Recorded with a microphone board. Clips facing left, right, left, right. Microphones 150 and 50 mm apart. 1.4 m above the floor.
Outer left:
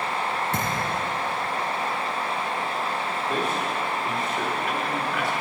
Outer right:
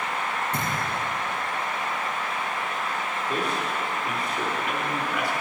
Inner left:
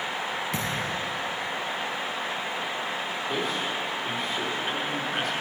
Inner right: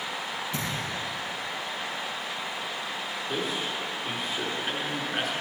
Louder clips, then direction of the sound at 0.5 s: Outer left 2 dB, inner left 3 dB; 75° left (ahead or behind).